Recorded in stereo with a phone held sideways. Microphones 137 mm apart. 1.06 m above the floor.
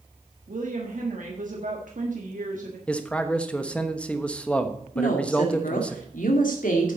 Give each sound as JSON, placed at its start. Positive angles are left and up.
{"t": 0.5, "sound": "a woman speaking", "side_deg": -70, "distance_m": 1.6}
{"t": 2.9, "sound": "a man speaking", "side_deg": 10, "distance_m": 1.1}
{"t": 5.0, "sound": "a woman speaking", "side_deg": 75, "distance_m": 2.5}